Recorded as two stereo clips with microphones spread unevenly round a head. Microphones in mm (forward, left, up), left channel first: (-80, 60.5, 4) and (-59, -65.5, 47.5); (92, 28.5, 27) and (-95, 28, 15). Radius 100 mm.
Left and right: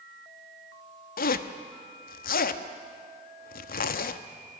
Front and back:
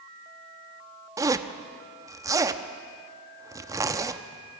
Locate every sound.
1.2 s a zipper: 105° left, 0.9 m